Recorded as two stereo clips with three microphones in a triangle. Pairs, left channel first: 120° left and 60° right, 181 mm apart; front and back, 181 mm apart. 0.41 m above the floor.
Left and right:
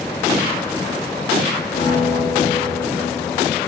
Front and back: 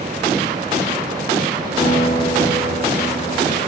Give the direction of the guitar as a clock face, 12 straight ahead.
9 o'clock.